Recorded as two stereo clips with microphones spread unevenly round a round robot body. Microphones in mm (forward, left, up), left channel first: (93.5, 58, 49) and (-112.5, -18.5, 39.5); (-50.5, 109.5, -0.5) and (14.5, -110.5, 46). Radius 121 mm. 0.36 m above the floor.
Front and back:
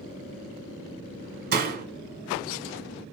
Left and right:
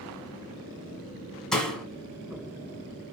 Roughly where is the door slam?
Behind.